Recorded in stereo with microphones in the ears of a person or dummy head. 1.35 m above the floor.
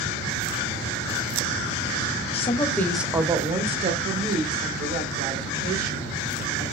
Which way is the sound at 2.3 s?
35° left (ahead or behind).